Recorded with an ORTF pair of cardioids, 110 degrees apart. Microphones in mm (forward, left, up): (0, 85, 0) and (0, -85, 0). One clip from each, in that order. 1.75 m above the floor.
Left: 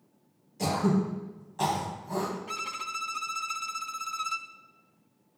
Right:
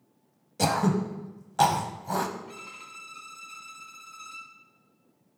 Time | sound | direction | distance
0.6 | throat clearing | 65° right | 0.8 m
2.5 | a violin | 65° left | 0.6 m